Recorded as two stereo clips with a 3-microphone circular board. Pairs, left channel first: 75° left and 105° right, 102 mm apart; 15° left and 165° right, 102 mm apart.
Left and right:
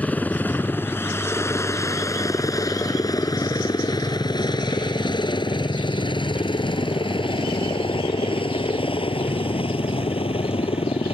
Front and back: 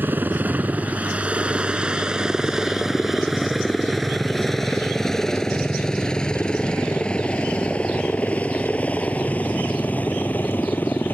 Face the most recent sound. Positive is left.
turn(degrees=85)